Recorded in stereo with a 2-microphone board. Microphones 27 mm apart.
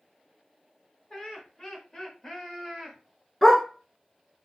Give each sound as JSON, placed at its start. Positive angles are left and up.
{"t": 1.1, "sound": "laughter", "side_deg": 25, "distance_m": 1.4}
{"t": 3.4, "sound": "a dog barking", "side_deg": 15, "distance_m": 1.1}